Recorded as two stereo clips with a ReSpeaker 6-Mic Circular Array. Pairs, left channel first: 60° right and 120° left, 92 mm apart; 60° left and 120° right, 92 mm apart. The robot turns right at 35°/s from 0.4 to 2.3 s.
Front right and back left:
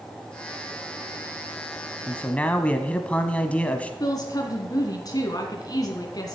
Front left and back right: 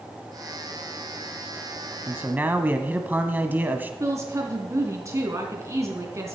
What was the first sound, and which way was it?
A man speaking, 110° right.